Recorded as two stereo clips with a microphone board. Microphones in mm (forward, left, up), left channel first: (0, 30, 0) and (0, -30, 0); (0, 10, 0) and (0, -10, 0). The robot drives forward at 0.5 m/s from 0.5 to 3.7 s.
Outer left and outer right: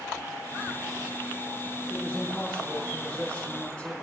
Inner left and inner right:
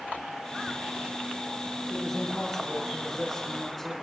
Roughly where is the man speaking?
Centre.